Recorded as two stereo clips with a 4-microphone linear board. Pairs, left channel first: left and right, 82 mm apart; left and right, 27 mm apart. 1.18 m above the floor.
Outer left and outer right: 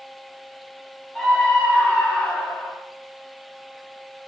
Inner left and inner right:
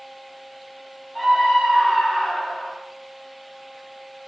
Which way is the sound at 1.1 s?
10° left (ahead or behind).